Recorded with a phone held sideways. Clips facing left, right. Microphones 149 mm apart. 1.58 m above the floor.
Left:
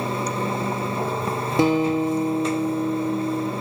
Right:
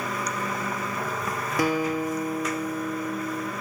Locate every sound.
0.0 s running water: 30° left (ahead or behind), 0.8 m
1.6 s a guitar: 25° left (ahead or behind), 0.8 m